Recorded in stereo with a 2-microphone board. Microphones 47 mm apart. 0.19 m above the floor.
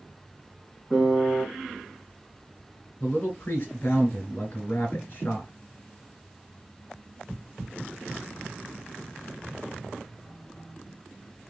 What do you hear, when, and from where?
0.9 s a piano: 15° right (ahead or behind), 1.9 m
3.0 s a man speaking: 30° left (ahead or behind), 1.2 m